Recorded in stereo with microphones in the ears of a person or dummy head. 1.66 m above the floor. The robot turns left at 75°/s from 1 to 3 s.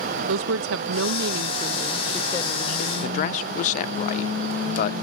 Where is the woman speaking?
95° right; by 2.9 s 120° left.